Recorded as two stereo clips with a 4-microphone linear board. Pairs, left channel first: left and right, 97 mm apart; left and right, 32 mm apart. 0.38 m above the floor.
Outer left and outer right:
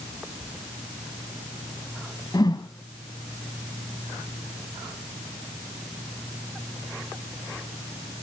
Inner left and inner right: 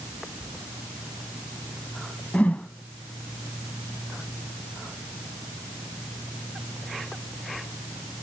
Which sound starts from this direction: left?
A whoosh, at 2.3 s.